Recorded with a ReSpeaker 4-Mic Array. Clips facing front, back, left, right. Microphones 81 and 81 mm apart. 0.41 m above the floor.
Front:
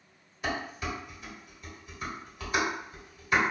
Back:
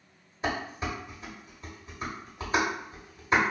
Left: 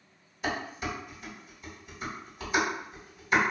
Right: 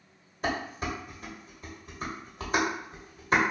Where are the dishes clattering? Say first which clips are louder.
Back 2 dB, right 2 dB; 125° right, 1.1 m.